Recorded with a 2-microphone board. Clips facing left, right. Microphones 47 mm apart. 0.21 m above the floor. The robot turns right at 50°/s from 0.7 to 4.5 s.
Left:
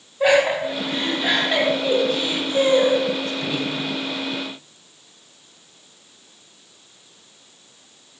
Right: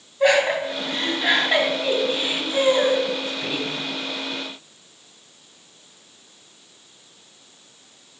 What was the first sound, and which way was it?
Laughter, 5° left (ahead or behind).